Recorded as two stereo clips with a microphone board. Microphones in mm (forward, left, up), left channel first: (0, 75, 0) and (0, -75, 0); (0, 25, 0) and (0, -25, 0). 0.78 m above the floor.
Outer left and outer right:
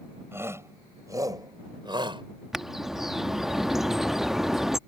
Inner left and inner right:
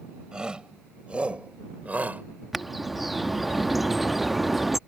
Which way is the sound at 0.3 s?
15° right (ahead or behind).